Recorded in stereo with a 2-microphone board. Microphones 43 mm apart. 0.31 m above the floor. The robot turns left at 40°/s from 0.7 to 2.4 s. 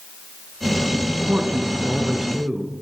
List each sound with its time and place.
1.3 s a man speaking: 145° right, 4 m; by 2.7 s 170° left, 4 m